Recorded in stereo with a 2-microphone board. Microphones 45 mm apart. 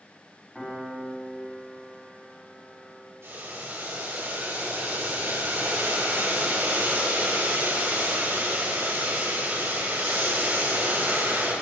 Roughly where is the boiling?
Right.